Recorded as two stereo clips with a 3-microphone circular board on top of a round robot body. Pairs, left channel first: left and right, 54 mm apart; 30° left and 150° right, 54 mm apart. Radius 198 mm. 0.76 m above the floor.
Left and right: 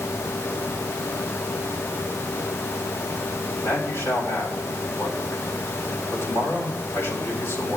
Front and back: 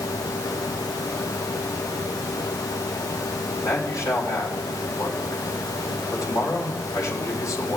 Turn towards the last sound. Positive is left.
turn(degrees=50)